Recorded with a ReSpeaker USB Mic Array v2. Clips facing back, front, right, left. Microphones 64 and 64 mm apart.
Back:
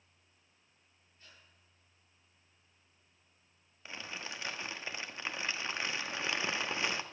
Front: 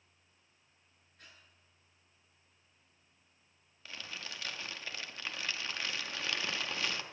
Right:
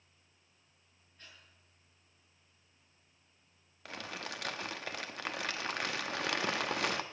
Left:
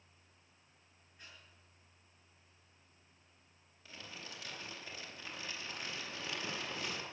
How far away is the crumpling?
About 0.9 m.